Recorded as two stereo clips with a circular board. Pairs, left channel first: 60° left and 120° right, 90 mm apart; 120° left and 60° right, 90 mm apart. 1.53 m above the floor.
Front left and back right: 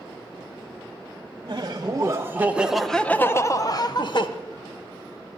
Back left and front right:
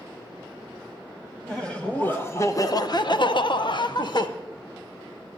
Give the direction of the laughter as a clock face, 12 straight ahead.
5 o'clock.